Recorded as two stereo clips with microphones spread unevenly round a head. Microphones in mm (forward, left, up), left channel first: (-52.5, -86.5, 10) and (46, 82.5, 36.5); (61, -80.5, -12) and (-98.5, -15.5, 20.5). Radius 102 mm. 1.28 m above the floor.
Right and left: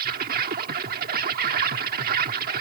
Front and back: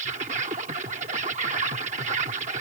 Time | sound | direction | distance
0.0 | an insect | 105° left | ?